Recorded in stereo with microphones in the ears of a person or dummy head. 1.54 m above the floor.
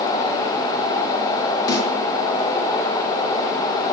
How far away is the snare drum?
About 5.5 m.